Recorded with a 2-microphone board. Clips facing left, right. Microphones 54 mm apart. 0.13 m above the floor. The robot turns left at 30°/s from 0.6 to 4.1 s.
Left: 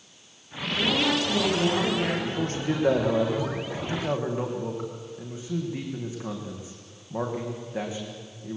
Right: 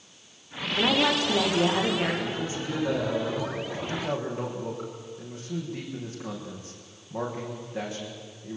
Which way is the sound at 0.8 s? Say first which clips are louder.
Right 1 dB; 130° right.